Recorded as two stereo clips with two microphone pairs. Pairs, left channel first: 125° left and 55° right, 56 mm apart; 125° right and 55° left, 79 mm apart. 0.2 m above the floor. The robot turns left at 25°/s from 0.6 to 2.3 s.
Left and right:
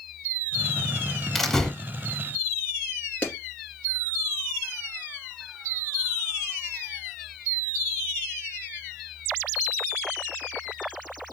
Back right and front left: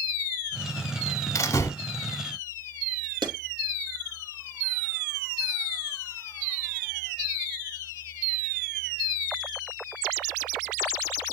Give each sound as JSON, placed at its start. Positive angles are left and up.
{"t": 1.4, "sound": "a door slam", "azimuth_deg": -155, "distance_m": 0.8}
{"t": 3.2, "sound": "a clap", "azimuth_deg": 60, "distance_m": 2.5}